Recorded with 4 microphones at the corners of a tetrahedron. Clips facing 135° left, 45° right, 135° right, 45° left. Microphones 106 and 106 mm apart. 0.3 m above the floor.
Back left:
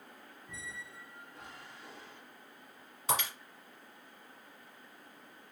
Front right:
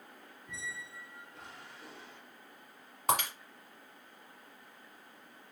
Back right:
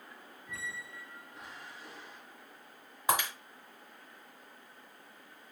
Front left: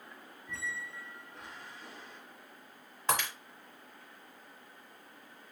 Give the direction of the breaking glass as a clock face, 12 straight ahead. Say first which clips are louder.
Front right 3 dB, back right 2 dB; 2 o'clock.